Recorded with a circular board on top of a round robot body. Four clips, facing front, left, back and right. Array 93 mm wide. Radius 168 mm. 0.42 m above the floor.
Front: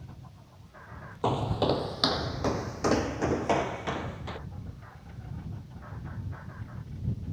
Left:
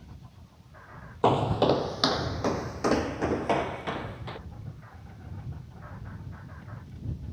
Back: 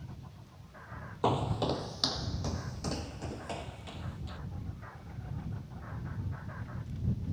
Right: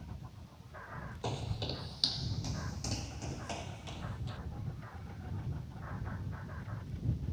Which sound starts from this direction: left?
Footsteps, at 1.2 s.